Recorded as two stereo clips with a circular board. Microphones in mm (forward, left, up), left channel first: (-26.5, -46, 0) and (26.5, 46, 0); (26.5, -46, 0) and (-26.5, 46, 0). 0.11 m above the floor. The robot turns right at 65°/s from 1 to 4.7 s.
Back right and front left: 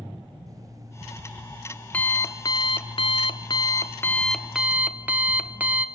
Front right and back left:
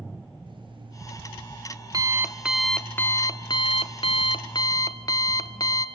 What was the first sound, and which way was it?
An alarm clock, 105° left.